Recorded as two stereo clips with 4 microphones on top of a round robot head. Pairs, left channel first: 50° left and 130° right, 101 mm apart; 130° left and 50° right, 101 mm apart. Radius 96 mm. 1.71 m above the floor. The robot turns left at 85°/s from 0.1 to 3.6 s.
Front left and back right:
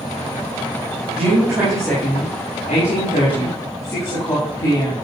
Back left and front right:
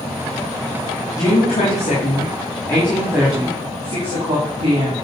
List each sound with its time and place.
1.2 s a woman speaking: 165° right, 3.5 m; by 5.0 s 10° right, 3.5 m